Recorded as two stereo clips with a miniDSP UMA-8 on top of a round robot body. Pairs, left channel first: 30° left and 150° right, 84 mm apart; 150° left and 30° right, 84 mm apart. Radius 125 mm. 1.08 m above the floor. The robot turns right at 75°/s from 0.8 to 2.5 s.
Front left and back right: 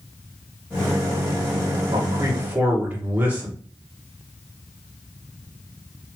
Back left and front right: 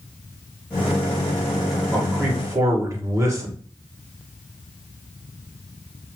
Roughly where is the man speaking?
Behind right.